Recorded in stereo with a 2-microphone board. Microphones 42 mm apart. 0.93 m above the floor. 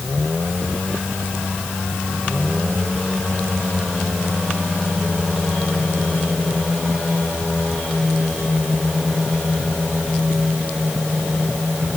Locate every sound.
Only background noise.